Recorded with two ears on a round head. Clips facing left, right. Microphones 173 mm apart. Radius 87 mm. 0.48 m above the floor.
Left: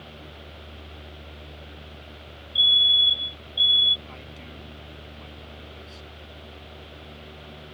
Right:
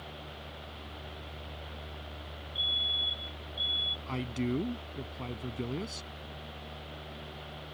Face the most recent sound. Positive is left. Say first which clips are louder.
# right 11 dB
turn(degrees=-65)  # may be behind; listen again after turning